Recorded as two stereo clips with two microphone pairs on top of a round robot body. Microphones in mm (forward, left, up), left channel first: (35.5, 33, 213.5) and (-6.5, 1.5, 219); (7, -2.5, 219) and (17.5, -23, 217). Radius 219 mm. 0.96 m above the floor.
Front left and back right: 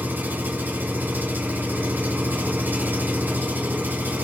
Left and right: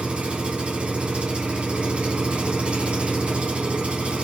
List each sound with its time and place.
0.0 s an engine running: 85° right, 2.5 m